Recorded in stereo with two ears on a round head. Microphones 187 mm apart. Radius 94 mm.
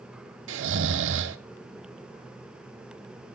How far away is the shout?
I don't hear a shout.